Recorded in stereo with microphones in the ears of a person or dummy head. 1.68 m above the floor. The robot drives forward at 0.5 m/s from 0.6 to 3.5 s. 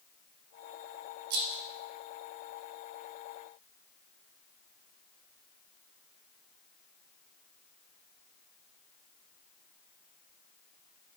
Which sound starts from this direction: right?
A rattle, at 1.3 s.